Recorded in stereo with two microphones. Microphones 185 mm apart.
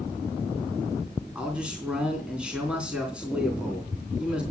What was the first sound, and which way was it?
A man speaking, 5° right (ahead or behind).